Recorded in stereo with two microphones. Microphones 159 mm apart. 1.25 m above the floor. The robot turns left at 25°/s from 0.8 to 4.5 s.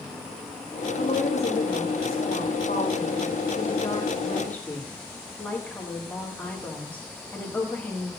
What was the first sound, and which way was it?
A woman speaking, 100° left.